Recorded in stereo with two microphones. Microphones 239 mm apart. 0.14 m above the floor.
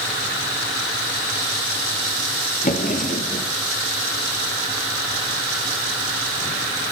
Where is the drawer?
35° left (ahead or behind), 1.6 m.